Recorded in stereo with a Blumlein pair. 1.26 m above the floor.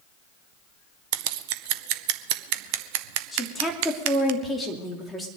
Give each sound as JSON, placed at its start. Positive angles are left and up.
{"t": 1.1, "sound": "scissors", "azimuth_deg": -45, "distance_m": 0.8}
{"t": 3.3, "sound": "a woman speaking", "azimuth_deg": 5, "distance_m": 3.0}